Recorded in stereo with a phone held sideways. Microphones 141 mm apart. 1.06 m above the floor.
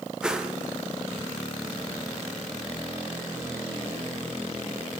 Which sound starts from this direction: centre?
A whoosh, at 0.2 s.